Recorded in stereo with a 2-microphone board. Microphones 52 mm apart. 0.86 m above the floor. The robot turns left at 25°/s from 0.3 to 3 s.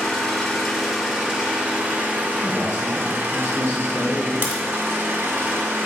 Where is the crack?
45° right (ahead or behind), 1.7 m.